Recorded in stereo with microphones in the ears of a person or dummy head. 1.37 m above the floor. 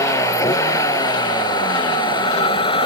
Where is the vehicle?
10° left (ahead or behind); by 2.9 s 20° left (ahead or behind).